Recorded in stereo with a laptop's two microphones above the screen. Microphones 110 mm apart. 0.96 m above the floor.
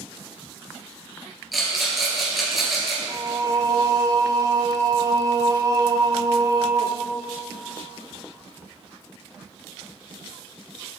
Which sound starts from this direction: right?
Singing, at 3.1 s.